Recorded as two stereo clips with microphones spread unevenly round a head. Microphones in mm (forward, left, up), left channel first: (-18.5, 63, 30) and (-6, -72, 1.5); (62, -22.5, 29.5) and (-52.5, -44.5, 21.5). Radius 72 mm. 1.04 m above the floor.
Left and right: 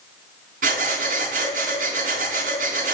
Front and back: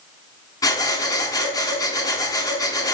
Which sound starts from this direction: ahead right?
Breathing, at 0.6 s.